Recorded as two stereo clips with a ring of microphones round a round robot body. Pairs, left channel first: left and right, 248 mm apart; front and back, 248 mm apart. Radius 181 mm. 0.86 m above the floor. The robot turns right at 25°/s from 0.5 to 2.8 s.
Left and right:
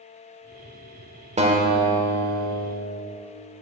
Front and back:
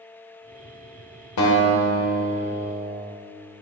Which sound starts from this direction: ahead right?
A guitar, at 1.4 s.